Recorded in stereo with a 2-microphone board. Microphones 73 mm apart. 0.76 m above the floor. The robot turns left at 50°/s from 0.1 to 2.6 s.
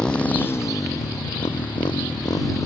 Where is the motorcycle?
170° left; by 2.7 s 45° left.